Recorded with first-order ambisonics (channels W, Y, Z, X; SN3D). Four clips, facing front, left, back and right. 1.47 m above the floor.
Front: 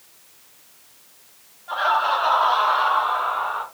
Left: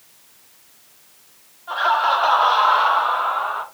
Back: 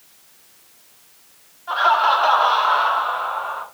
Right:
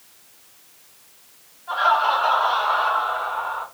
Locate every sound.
1.7 s laughter: 165° left, 1.0 m; by 3.6 s 90° left, 0.9 m